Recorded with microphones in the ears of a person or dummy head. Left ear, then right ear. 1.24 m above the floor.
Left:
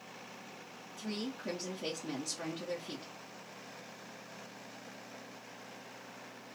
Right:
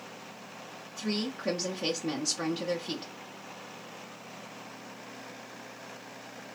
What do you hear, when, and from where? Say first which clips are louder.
1.0 s a woman speaking: right 7 dB; 25° right (ahead or behind), 0.9 m